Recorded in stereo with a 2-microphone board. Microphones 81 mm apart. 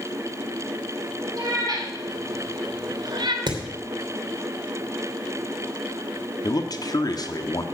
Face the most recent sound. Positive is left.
turn(degrees=55)  # may be behind; listen again after turning